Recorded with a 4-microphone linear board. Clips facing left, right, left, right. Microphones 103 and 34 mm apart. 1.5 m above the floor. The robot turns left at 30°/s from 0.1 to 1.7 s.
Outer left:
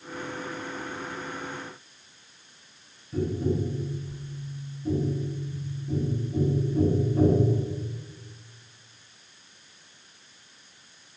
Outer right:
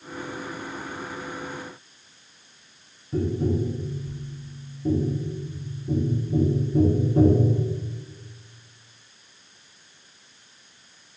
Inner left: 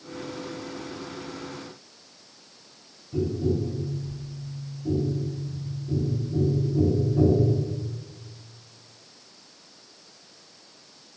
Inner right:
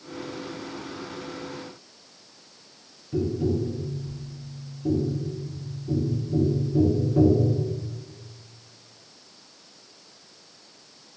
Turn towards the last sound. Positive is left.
turn(degrees=-70)  # may be behind; listen again after turning